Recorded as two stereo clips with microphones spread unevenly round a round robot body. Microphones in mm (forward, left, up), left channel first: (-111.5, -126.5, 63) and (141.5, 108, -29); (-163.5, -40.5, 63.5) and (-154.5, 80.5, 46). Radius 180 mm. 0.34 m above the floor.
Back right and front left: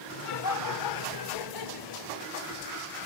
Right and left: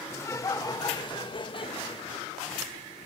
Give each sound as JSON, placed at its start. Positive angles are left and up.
{"t": 0.1, "sound": "laughter", "azimuth_deg": -155, "distance_m": 1.4}